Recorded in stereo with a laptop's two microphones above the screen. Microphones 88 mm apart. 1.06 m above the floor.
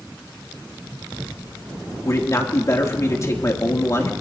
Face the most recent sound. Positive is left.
turn(degrees=35)  # may be behind; listen again after turning